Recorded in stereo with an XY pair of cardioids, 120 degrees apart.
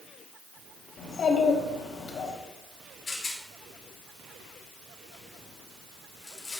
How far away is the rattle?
About 2.5 m.